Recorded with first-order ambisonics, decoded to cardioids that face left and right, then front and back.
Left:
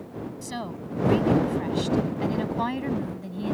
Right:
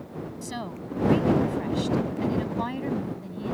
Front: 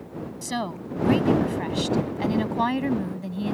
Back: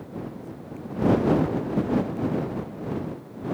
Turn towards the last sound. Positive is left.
turn(degrees=15)